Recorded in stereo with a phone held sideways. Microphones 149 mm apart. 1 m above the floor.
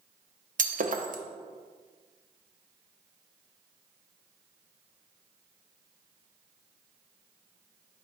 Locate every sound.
0.6 s breaking glass: 65° right (ahead or behind), 0.6 m